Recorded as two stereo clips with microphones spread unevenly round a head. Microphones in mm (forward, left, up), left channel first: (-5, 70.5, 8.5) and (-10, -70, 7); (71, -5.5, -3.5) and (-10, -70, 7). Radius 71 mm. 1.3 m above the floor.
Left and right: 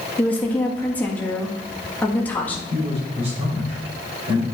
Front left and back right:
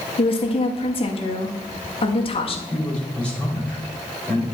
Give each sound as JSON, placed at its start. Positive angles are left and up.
{"t": 0.2, "sound": "a woman speaking", "azimuth_deg": 10, "distance_m": 1.7}
{"t": 2.7, "sound": "a man speaking", "azimuth_deg": -40, "distance_m": 5.0}